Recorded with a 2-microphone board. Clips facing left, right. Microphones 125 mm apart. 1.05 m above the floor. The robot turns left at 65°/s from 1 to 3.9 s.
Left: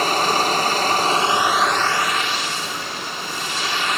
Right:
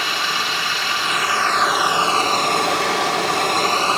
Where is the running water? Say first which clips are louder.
Left 6 dB; 40° left, 2.5 m; by 4.0 s 145° right, 2.5 m.